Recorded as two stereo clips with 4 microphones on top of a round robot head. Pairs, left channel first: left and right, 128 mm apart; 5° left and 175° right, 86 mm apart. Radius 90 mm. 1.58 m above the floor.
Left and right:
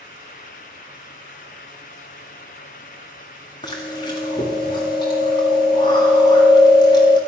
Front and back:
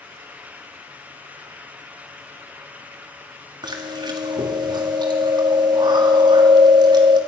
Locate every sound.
3.6 s chewing: 155° left, 2.0 m